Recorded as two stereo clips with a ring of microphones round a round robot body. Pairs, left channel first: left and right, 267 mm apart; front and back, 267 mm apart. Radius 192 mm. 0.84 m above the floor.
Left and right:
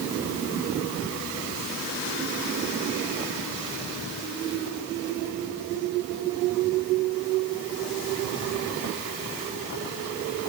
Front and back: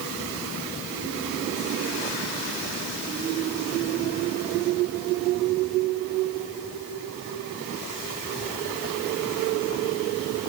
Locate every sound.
Only background noise.